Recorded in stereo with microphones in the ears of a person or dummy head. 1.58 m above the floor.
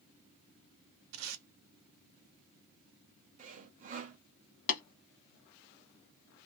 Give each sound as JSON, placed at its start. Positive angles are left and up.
{"t": 1.1, "sound": "tape being pulled", "side_deg": -85, "distance_m": 0.8}
{"t": 3.4, "sound": "sawing", "side_deg": -40, "distance_m": 0.5}
{"t": 4.7, "sound": "tapping", "side_deg": 50, "distance_m": 1.3}